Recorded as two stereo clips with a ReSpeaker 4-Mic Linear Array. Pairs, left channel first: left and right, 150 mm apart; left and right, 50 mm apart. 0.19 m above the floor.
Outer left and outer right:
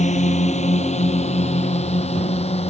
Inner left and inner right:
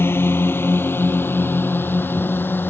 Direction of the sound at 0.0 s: 50° left (ahead or behind).